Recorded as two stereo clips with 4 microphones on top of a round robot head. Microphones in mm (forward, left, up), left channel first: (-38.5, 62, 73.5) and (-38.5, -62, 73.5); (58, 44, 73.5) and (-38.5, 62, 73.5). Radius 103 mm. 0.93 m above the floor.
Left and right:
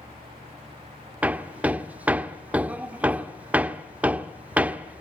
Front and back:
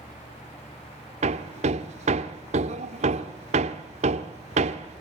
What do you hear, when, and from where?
1.2 s hammering: 170° right, 1.2 m